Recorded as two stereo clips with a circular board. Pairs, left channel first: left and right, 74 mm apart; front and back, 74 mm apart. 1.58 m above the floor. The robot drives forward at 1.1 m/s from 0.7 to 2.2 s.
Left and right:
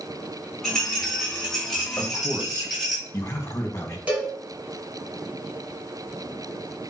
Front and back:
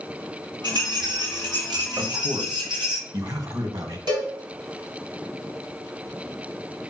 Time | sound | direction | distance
0.6 | a rattle | 175° left | 4 m
2.0 | a man speaking | 140° left | 1.6 m
4.1 | a cowbell | 165° right | 3 m